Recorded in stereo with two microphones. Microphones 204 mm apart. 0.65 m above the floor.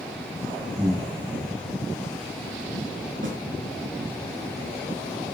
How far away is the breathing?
About 5.5 m.